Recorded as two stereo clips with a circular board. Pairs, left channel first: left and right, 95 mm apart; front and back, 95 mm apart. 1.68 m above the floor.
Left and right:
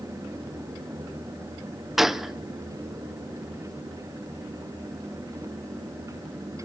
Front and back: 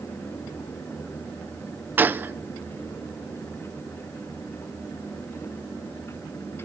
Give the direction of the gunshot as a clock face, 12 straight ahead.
6 o'clock.